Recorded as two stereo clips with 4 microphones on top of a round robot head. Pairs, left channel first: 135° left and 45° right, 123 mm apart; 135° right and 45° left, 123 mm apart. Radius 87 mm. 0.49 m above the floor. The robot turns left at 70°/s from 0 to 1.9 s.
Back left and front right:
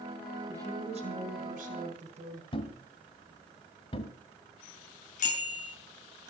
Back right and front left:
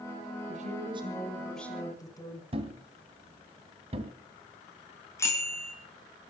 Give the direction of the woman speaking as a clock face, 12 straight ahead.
11 o'clock.